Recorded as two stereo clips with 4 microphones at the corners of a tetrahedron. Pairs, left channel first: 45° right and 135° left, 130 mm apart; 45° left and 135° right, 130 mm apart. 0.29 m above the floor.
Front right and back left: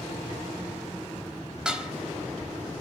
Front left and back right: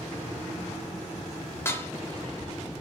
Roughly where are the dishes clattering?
Left.